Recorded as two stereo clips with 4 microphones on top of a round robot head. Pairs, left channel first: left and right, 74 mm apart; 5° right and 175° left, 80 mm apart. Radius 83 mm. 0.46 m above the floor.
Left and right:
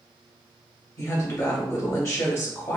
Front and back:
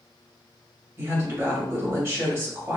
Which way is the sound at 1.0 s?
125° left.